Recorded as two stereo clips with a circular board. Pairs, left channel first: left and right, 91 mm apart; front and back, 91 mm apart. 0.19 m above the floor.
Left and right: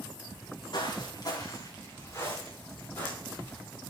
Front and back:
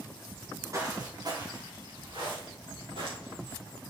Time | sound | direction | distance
0.3 | footsteps | 115° left | 2.5 m